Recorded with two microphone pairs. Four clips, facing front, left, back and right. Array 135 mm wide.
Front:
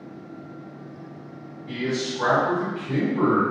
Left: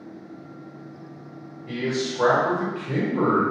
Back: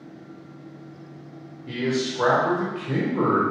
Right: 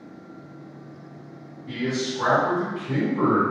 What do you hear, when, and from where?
1.7 s a man speaking: 155° left, 1.7 m